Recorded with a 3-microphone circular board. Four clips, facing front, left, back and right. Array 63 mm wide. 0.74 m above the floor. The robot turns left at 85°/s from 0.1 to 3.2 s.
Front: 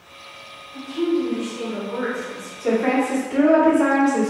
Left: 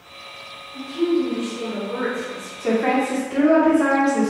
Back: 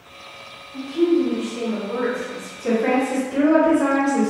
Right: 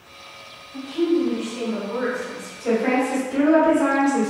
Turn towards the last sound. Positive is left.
turn(degrees=35)